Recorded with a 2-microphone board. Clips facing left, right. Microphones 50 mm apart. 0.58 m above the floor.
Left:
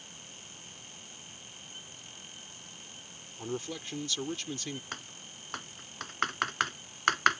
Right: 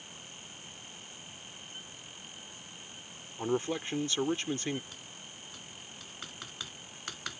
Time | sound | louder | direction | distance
3.4 | a man speaking | right 6 dB | 35° right (ahead or behind) | ?
4.9 | typing on a keyboard | left 5 dB | 65° left (ahead or behind) | ?